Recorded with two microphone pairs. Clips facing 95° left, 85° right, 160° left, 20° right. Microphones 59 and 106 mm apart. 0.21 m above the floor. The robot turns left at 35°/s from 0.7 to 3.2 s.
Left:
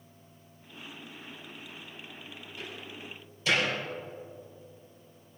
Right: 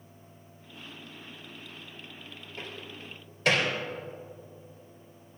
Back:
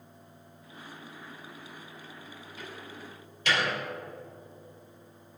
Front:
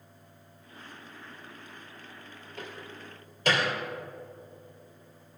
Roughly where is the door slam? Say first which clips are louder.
Right 1 dB, front 2 dB; ahead right.